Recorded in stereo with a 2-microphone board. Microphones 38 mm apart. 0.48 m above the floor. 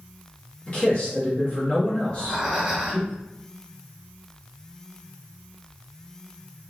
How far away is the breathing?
About 0.8 m.